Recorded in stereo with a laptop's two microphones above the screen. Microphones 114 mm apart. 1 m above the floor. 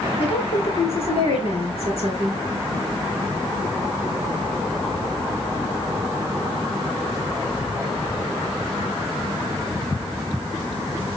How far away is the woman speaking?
About 3.5 m.